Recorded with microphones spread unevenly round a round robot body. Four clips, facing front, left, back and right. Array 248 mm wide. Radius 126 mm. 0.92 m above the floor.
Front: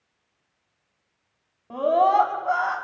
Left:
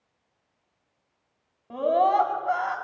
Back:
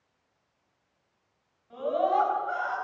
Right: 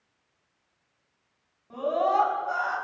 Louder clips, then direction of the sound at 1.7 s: Left 3 dB, front 7 dB; 30° left.